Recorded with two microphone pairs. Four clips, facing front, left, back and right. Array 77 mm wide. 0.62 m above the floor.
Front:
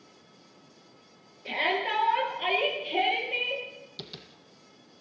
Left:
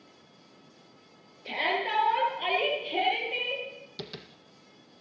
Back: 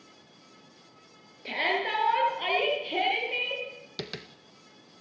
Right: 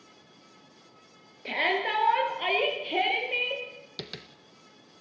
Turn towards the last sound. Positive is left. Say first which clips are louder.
# even, back 9 dB
turn(degrees=-160)